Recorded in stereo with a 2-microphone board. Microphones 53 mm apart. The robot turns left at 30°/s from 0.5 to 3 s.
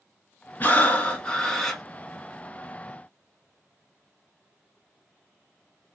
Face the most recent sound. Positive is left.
turn(degrees=-35)